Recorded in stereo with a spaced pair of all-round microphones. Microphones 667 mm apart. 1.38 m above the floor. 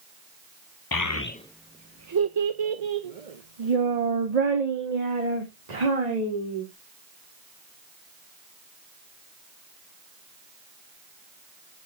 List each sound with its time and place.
0.9 s a child speaking: 35° left (ahead or behind), 0.6 m; by 6.7 s 70° right (ahead or behind), 3 m